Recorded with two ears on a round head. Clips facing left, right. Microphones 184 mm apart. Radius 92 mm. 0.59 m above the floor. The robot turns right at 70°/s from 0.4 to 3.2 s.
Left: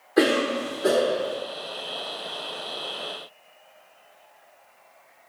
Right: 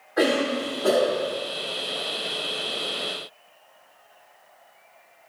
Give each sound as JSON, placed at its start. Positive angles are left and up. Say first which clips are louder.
{"t": 0.2, "sound": "a cough", "louder": "left 1 dB", "azimuth_deg": 125, "distance_m": 1.7}